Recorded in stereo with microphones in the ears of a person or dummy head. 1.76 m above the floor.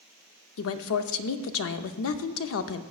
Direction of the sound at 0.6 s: 70° left (ahead or behind).